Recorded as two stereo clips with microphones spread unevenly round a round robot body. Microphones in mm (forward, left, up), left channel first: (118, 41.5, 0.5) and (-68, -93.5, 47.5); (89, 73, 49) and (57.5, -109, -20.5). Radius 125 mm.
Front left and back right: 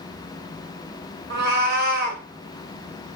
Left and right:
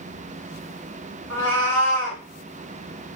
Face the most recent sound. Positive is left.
turn(degrees=165)